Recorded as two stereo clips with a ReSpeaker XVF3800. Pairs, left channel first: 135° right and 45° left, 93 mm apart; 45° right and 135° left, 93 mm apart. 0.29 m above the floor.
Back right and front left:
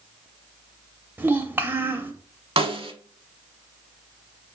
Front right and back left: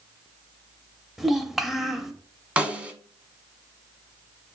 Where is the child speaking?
50° left, 0.5 m.